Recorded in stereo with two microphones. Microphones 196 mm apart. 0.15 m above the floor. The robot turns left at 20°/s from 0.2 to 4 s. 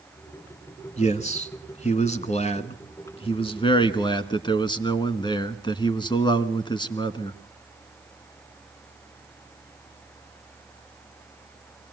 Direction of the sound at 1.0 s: 100° left.